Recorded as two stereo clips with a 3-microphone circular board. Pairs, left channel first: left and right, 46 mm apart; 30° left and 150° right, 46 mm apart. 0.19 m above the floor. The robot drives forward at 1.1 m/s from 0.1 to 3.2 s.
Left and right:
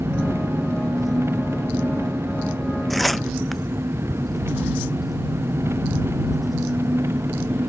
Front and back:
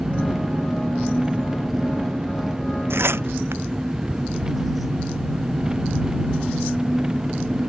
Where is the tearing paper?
Straight behind.